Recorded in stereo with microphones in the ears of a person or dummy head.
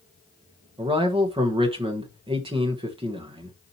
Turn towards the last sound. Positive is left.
turn(degrees=-20)  # may be behind; listen again after turning